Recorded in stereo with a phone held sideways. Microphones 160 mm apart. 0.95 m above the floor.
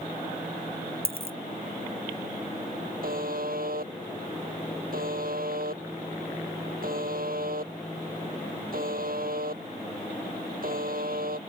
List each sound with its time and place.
1.1 s a dropped coin: 70° right (ahead or behind)
3.0 s a buzzer: 65° right (ahead or behind)